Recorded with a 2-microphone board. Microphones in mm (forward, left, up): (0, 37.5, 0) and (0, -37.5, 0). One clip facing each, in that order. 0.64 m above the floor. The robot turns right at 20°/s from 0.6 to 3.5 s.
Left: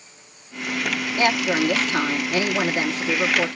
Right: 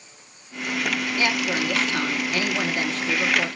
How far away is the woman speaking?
About 1.2 m.